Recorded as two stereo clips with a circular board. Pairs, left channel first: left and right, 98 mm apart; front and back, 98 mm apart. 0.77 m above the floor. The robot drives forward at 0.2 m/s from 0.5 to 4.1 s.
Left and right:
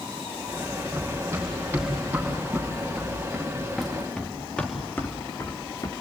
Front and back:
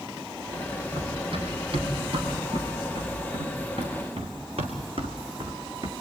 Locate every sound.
0.9 s running footsteps: 155° right, 7 m; by 5.9 s 135° left, 2.5 m